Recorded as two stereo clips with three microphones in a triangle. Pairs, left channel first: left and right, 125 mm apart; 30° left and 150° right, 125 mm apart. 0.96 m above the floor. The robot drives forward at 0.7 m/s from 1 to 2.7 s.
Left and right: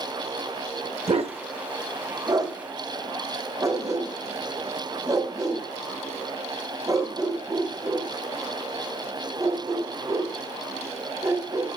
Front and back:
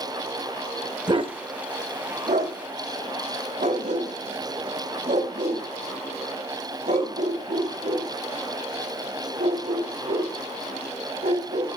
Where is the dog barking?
105° right, 0.9 m; by 11.7 s 150° right, 1.6 m.